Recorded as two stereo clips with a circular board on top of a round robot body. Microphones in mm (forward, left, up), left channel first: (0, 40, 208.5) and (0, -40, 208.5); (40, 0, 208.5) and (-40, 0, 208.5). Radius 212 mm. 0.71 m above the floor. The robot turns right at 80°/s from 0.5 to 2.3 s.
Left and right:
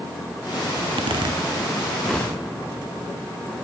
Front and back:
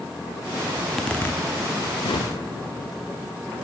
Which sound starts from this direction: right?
A zipper, at 0.8 s.